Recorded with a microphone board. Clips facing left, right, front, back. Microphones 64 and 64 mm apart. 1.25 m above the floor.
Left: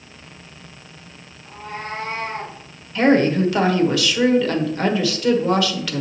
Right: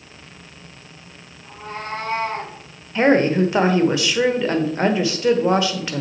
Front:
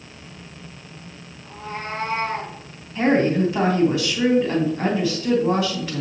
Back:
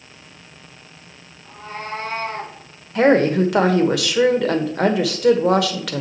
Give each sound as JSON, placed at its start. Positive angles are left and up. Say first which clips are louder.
{"t": 1.4, "sound": "a cat meowing", "louder": "even, even", "azimuth_deg": -70, "distance_m": 3.5}
{"t": 3.0, "sound": "a woman speaking", "louder": "even, back 4 dB", "azimuth_deg": -155, "distance_m": 1.3}